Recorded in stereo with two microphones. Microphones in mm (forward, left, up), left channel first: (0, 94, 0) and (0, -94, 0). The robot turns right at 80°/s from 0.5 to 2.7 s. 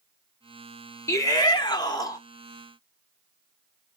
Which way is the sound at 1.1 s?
15° left (ahead or behind).